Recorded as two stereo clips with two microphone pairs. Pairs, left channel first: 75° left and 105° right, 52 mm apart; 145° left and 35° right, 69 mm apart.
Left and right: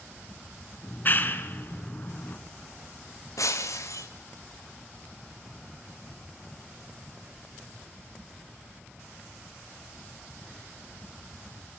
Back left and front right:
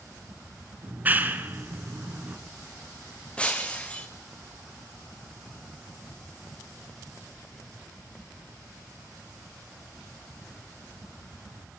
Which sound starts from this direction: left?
Breaking glass, at 3.4 s.